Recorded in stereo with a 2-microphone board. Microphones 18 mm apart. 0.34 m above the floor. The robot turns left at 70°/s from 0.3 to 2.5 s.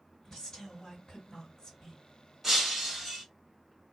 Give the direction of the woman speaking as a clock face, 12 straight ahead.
7 o'clock.